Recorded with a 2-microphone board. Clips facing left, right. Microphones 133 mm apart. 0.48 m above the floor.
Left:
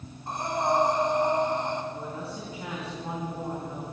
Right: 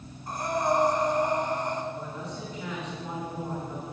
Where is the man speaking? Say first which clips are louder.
Left 1 dB; 30° left (ahead or behind), 4.5 m.